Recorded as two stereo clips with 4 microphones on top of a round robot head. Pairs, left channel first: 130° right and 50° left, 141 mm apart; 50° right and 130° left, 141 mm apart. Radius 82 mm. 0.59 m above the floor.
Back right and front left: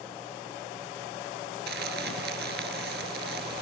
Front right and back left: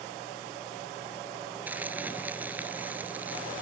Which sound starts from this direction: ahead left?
Crumpling, at 1.7 s.